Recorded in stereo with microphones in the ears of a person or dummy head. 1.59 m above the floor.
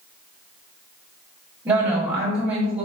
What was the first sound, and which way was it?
A woman speaking, 20° right (ahead or behind).